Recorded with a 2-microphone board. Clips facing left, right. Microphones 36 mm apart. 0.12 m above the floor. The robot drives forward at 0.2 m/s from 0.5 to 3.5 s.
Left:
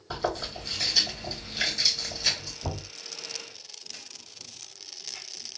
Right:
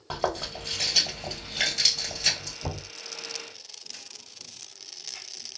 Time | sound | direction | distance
0.1 | chewing | 65° right (ahead or behind) | 1.8 m
2.6 | knocking | 45° right (ahead or behind) | 1.9 m